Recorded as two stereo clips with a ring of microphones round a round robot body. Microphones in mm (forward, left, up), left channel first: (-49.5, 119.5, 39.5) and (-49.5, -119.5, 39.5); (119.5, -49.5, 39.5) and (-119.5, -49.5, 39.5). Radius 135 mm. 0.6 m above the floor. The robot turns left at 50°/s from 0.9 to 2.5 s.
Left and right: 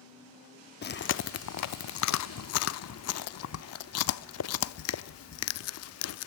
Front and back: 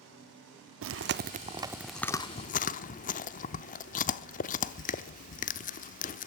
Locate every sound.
0.8 s chewing: 140° left, 0.7 m; by 6.3 s 60° left, 0.7 m